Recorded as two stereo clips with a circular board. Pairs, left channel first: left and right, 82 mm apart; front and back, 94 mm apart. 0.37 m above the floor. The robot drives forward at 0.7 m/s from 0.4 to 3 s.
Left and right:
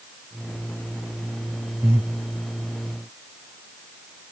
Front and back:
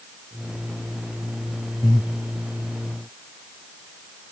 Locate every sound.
1.8 s breathing: 35° right, 2.5 m; by 2.1 s 40° right, 2.5 m